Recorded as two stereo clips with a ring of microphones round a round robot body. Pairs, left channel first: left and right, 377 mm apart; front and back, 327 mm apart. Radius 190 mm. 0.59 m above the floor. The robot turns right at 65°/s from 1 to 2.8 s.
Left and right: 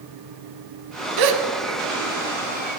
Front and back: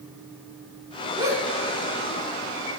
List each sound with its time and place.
1.2 s a gasp: 105° right, 0.7 m; by 1.4 s 90° right, 0.7 m